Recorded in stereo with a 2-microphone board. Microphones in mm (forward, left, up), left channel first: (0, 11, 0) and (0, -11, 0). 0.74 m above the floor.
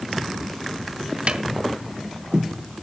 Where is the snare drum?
55° right (ahead or behind), 1.4 m.